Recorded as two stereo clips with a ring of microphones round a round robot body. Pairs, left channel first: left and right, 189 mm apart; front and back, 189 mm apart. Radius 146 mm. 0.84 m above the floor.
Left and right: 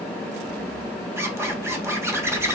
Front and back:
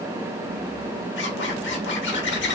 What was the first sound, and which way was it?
A zipper, 15° right.